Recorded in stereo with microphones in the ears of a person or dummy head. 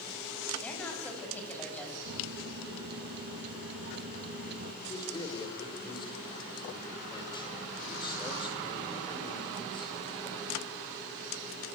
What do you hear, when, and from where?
0.6 s a woman speaking: 10° left (ahead or behind), 8 m
2.0 s a microwave: 60° right (ahead or behind), 1.4 m
4.8 s a man speaking: 25° left (ahead or behind), 4 m